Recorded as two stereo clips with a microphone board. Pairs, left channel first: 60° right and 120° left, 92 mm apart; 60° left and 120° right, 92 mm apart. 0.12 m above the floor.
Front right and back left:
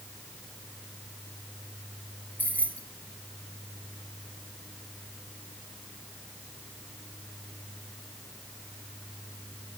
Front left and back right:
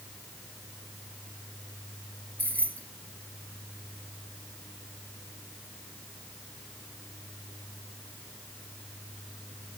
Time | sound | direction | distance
2.4 | keys jangling | straight ahead | 1.4 m